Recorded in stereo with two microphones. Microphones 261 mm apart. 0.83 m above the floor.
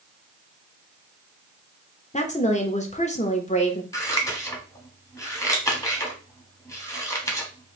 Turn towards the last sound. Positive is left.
turn(degrees=10)  # may be behind; listen again after turning